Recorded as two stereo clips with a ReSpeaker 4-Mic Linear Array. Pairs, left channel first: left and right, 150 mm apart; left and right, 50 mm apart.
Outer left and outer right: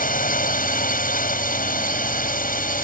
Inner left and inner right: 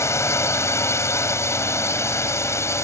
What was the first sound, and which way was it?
A drone, 65° left (ahead or behind).